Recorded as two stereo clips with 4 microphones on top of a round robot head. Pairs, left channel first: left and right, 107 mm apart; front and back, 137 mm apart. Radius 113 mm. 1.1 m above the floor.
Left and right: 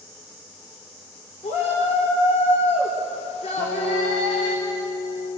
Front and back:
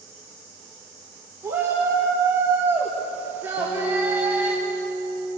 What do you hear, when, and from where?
1.4 s a shout: 105° left, 4 m; by 4.6 s 100° left, 2 m
3.6 s a guitar: 65° left, 8 m